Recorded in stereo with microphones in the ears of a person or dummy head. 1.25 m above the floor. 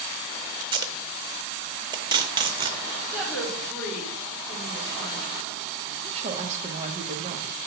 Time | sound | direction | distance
0.6 | tape being pulled | 20° right (ahead or behind) | 0.6 m
3.1 | a woman speaking | centre (ahead or behind) | 3 m
6.0 | a woman speaking | 35° right (ahead or behind) | 1.1 m